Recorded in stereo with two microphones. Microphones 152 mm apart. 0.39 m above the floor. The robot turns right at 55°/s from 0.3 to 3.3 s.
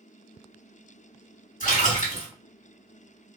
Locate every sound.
1.6 s a splash: 85° left, 2 m; by 2.3 s 125° left, 2 m